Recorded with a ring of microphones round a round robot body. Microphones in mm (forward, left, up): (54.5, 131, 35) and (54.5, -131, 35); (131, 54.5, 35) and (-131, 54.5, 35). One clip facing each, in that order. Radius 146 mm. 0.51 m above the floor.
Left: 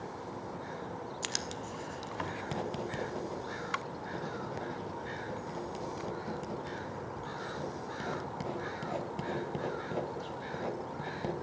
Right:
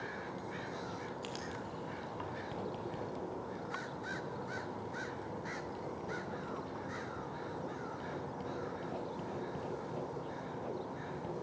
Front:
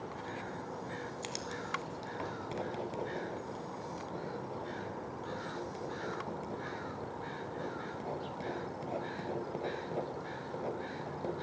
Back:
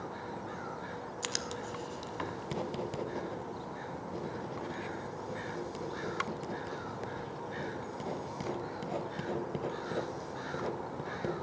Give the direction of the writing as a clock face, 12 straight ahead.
8 o'clock.